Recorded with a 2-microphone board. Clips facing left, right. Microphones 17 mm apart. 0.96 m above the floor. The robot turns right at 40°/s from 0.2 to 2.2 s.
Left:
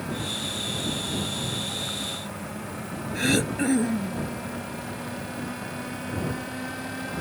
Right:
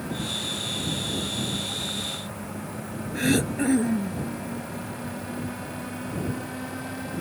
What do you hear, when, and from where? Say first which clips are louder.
3.1 s throat clearing: even; 15° left (ahead or behind)